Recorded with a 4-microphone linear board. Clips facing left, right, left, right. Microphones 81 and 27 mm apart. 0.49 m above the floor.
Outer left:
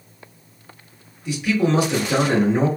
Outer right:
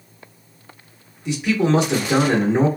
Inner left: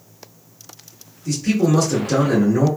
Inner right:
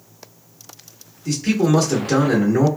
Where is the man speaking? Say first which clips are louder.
Outer right 1 dB, even; 25° right (ahead or behind), 1.2 m.